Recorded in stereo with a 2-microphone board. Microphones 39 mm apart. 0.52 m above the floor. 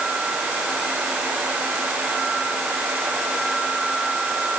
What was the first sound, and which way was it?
Only background noise.